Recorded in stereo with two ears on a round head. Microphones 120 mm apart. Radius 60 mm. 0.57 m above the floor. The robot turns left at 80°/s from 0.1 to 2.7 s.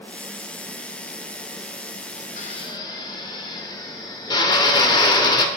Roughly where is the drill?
Left.